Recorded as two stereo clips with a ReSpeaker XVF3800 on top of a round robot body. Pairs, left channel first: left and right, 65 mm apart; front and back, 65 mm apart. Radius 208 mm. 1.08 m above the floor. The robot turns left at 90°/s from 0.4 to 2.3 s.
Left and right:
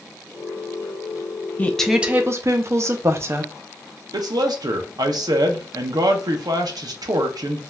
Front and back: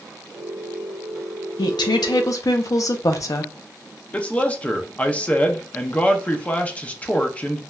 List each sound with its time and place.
1.6 s a woman speaking: 25° left, 0.6 m; by 3.5 s 40° right, 0.6 m
4.1 s a man speaking: 70° right, 0.7 m